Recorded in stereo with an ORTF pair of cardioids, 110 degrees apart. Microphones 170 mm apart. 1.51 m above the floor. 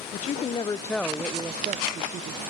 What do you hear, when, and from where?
0.1 s a woman speaking: 50° left, 0.9 m; by 2.4 s 55° right, 1.1 m